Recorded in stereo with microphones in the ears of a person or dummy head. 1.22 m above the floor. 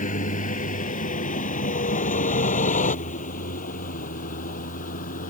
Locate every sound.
0.0 s a vehicle: 45° left (ahead or behind)